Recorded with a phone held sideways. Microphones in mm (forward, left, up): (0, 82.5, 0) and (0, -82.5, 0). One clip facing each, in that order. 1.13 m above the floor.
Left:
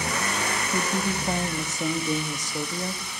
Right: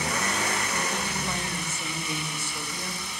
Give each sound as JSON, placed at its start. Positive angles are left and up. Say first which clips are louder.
{"t": 0.7, "sound": "a woman speaking", "louder": "left 4 dB", "side_deg": 40, "distance_m": 2.0}